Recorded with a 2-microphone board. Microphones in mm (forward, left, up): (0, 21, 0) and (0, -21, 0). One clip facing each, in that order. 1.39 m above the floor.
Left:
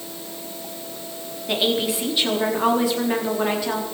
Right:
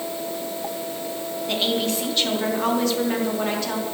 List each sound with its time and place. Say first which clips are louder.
1.5 s a woman speaking: left 2 dB; 15° left (ahead or behind), 4 m